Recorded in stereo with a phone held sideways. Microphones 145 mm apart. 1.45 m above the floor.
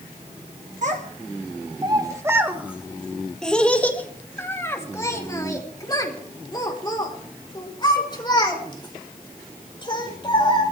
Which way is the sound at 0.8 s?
60° right (ahead or behind).